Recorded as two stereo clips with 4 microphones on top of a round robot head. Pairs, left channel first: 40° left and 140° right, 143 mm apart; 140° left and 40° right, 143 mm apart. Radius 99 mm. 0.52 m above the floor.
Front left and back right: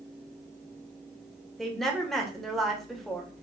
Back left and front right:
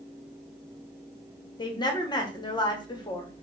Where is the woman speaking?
125° left, 0.9 m.